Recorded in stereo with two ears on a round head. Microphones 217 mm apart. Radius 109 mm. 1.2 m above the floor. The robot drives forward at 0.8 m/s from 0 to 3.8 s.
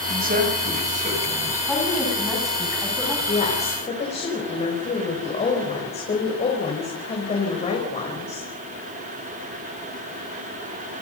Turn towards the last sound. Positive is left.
turn(degrees=30)  # may be behind; listen again after turning